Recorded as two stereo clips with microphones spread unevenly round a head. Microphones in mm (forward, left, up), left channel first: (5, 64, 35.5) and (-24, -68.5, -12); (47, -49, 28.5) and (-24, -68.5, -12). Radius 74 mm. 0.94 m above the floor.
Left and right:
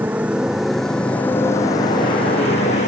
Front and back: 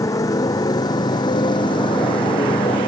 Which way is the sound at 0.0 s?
25° right.